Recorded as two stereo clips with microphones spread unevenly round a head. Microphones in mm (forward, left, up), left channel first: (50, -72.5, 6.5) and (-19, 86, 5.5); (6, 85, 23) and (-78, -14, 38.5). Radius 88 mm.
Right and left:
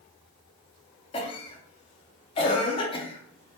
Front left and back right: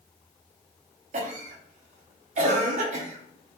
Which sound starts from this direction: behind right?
A cough, at 1.1 s.